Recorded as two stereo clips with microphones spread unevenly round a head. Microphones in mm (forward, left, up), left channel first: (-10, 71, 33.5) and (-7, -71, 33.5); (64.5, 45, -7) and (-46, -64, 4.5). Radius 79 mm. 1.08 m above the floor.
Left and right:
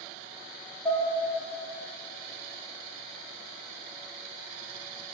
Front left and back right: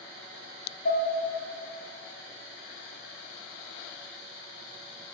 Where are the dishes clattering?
10° left, 4 m.